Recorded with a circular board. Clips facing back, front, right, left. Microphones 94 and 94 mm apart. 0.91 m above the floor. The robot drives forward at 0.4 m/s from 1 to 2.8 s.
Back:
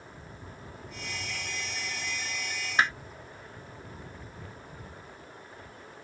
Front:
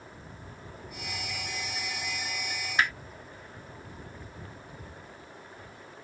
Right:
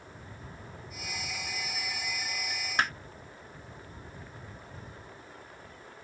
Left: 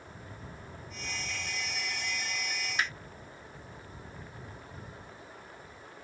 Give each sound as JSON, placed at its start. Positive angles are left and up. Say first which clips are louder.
{"t": 2.8, "sound": "hammering", "louder": "back 1 dB, right 4 dB", "azimuth_deg": -120}